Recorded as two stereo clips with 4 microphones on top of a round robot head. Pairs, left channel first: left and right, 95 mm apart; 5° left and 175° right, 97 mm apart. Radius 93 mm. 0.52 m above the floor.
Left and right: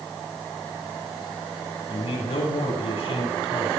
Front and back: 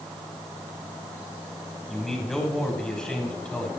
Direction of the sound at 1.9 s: 95° left.